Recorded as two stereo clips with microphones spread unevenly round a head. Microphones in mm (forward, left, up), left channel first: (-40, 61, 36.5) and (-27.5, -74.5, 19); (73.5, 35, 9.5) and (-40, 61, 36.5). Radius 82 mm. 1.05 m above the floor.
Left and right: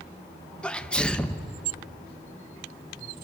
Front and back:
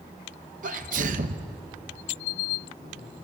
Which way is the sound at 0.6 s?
Straight behind.